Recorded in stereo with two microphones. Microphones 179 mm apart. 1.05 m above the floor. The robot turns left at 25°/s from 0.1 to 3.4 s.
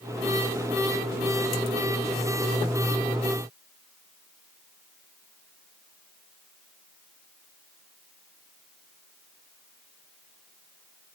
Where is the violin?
No violin in this recording.